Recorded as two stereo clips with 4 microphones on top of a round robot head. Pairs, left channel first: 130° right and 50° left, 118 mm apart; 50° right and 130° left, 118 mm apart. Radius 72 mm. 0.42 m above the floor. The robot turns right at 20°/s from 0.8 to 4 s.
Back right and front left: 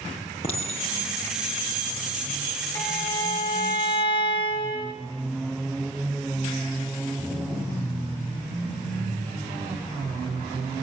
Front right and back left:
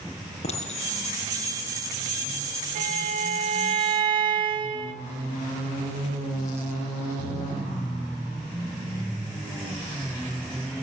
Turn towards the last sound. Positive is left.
turn(degrees=180)